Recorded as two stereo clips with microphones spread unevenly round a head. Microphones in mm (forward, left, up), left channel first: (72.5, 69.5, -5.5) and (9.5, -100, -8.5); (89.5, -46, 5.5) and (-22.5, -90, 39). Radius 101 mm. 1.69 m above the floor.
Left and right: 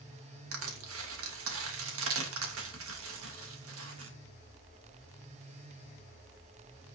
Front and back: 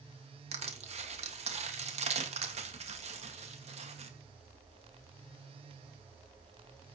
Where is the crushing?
125° right, 2 m.